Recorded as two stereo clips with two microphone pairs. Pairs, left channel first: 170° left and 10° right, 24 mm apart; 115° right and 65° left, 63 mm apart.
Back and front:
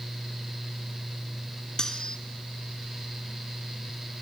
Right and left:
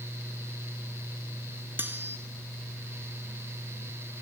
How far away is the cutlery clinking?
About 1.2 m.